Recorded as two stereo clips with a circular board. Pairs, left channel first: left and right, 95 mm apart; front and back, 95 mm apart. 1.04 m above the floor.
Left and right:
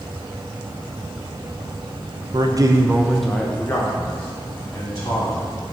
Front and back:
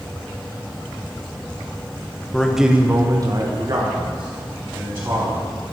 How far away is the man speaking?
About 1.0 m.